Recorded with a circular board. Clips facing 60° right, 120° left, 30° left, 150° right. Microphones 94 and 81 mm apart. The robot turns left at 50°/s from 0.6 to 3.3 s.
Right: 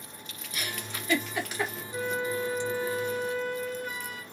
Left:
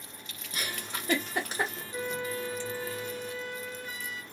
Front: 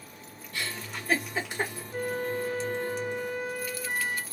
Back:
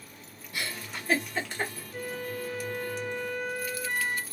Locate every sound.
0.5 s a giggle: 140° left, 1.0 m; by 1.8 s 80° left, 1.0 m
1.9 s a flute: 15° left, 0.5 m; by 4.2 s 50° right, 0.5 m